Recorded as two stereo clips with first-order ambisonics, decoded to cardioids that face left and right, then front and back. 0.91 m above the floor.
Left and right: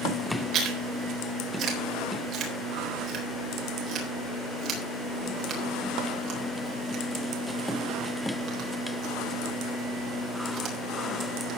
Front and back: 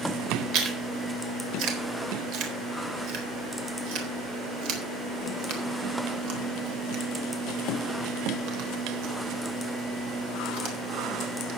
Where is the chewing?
145° right, 3.5 m.